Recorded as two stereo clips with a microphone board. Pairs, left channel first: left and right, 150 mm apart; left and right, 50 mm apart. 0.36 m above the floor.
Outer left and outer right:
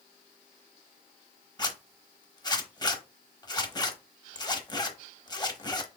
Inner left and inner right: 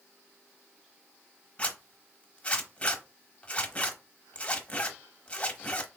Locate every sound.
1.6 s a zipper: 30° left (ahead or behind), 0.9 m